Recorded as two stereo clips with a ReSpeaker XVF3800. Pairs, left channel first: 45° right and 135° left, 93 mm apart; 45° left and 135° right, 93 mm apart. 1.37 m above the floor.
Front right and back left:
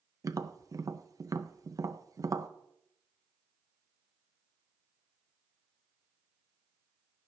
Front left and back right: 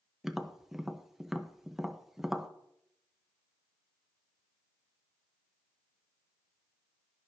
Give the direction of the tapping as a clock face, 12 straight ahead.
7 o'clock.